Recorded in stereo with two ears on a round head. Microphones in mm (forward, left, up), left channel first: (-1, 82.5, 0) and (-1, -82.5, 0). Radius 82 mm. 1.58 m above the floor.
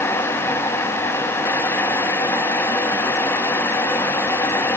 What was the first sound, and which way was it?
Only background noise.